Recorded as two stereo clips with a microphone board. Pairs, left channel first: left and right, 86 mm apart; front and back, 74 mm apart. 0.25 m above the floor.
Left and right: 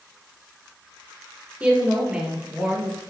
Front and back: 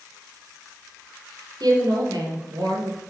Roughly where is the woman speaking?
Behind.